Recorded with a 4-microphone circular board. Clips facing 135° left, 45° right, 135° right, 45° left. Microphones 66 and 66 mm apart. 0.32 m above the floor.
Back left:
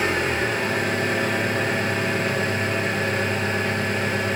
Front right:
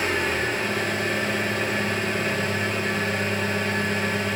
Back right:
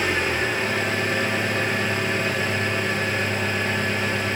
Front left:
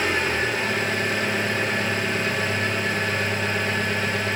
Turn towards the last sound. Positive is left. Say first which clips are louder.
# back left 2 dB, even
turn(degrees=170)